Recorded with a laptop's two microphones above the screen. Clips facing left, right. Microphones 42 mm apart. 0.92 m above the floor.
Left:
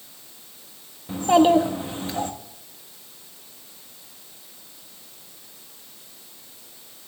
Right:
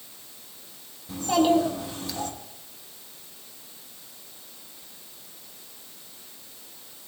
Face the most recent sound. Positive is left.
turn(degrees=35)  # may be behind; listen again after turning